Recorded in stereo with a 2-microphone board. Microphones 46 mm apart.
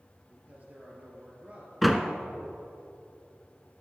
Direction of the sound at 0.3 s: 35° right (ahead or behind).